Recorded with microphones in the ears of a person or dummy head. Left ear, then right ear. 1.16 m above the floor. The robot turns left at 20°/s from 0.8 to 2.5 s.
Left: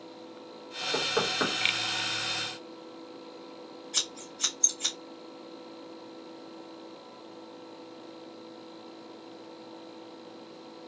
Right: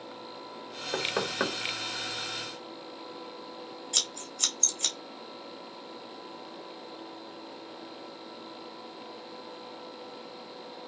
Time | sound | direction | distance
0.9 | knocking | 80° right | 1.6 m
3.9 | scissors | 55° right (ahead or behind) | 1.9 m